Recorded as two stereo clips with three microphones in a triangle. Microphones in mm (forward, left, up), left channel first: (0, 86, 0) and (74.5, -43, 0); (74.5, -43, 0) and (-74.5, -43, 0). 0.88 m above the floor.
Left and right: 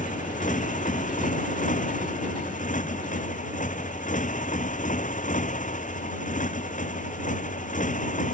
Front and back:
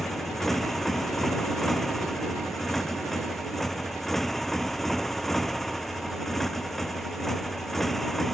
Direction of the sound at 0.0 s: 90° left.